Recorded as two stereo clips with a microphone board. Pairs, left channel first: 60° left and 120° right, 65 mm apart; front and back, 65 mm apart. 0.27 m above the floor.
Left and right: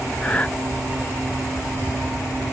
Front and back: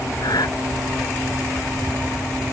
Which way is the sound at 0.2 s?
10° right.